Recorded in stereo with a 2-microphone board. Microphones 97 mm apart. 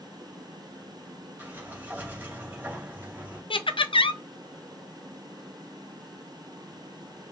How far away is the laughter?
About 0.5 m.